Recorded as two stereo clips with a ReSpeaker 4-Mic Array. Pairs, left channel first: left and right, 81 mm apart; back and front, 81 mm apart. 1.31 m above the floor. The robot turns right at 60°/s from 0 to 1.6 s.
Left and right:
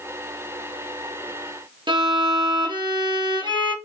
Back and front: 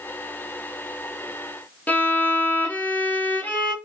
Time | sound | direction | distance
1.9 | a violin | 110° right | 2.0 m